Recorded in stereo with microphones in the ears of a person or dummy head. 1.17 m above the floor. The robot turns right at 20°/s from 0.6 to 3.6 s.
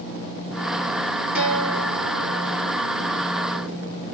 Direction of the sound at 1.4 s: 5° right (ahead or behind).